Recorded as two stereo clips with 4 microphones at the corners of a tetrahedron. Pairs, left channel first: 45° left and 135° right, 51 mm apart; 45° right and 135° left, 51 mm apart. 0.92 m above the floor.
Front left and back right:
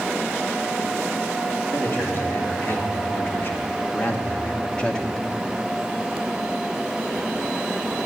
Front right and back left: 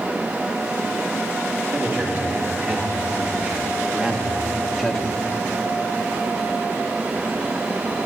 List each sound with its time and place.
1.7 s a man speaking: 85° left, 2 m; by 5.2 s 5° right, 0.9 m